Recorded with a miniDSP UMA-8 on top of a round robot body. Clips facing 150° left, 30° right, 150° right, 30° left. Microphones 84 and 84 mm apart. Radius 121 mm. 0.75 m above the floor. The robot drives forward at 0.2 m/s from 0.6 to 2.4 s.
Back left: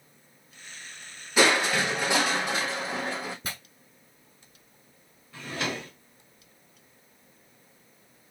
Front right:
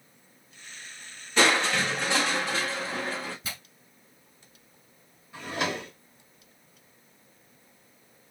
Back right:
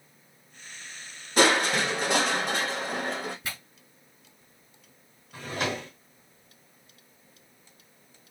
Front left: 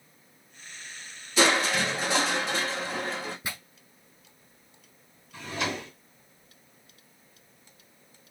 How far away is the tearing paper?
About 1.2 m.